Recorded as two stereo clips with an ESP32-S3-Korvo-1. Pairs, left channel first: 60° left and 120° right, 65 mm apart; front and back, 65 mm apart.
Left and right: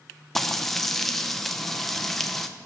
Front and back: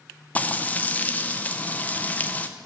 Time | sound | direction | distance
0.3 | frying | 25° right | 0.5 m